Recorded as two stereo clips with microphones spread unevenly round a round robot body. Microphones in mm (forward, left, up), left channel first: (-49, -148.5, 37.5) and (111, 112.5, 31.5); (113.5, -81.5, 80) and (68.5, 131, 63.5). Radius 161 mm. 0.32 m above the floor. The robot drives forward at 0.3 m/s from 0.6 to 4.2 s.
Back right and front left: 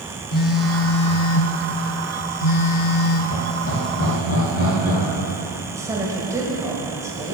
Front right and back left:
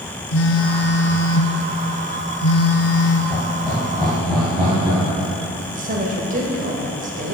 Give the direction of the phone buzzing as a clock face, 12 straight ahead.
2 o'clock.